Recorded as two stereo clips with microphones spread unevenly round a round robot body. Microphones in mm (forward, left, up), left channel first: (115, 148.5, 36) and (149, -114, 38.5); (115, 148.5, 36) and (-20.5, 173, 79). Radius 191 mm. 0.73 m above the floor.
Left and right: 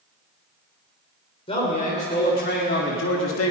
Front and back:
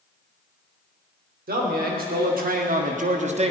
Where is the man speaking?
170° left, 3 m; by 3.5 s 120° left, 1.6 m.